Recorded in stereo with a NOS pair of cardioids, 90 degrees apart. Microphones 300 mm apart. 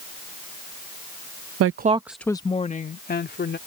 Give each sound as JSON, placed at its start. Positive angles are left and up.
{"t": 1.6, "sound": "a woman speaking", "azimuth_deg": -55}